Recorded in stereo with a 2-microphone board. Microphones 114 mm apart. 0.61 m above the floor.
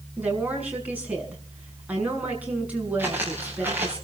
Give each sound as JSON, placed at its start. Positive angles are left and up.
{"t": 0.2, "sound": "a woman speaking", "side_deg": -15, "distance_m": 6.0}
{"t": 3.0, "sound": "footsteps", "side_deg": -20, "distance_m": 5.5}